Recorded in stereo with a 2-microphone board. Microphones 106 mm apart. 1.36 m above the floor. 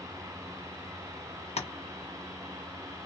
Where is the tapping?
80° left, 0.6 m.